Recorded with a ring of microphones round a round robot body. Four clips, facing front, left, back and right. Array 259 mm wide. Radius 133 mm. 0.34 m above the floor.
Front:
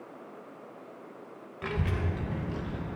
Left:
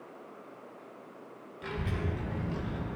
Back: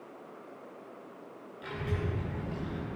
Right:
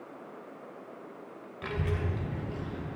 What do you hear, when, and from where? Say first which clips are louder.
1.6 s a child speaking: right 2 dB, front 3 dB; 30° right, 0.9 m; by 3.0 s 70° left, 0.9 m